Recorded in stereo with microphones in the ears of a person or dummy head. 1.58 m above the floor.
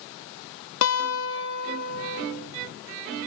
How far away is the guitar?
About 3.5 m.